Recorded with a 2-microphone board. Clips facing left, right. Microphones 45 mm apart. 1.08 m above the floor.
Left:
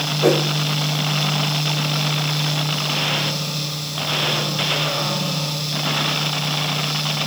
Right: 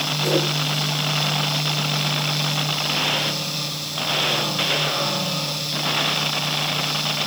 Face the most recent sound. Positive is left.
turn(degrees=70)  # may be behind; listen again after turning